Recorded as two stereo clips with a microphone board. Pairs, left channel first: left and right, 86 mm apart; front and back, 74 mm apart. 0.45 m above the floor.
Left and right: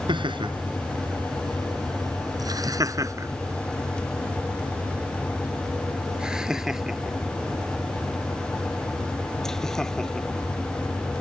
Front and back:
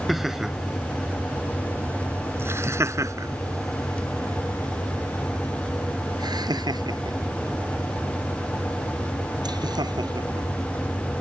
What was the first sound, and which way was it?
Laughter, 95° right.